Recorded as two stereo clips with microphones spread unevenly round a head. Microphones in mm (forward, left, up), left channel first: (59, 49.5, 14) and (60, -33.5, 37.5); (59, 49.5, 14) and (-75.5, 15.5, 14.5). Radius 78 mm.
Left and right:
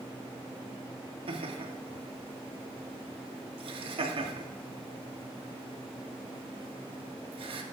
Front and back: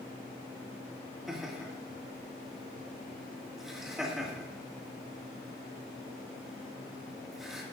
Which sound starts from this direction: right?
Laughter, at 1.3 s.